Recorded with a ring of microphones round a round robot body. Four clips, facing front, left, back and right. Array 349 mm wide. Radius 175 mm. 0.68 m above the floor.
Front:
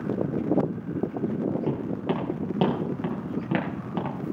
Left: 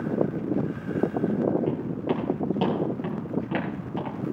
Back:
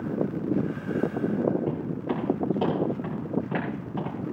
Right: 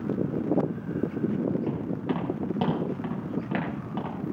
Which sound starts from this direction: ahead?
Footsteps, at 1.7 s.